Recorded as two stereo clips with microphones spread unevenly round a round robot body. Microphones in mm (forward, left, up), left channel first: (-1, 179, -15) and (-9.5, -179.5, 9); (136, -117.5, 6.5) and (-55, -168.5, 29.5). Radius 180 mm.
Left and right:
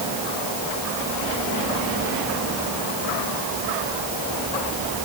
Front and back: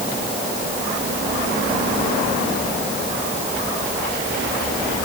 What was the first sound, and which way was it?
Only background noise.